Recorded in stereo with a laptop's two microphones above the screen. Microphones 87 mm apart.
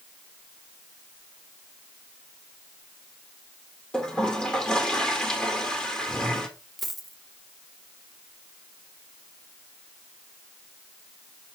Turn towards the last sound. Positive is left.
turn(degrees=0)  # may be behind; listen again after turning